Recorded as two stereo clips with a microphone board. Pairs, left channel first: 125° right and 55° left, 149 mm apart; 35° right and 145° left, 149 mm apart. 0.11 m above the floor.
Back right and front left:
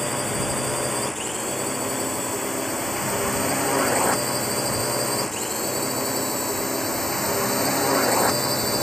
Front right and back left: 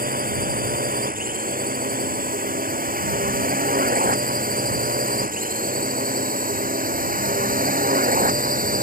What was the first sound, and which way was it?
A drone, 145° left.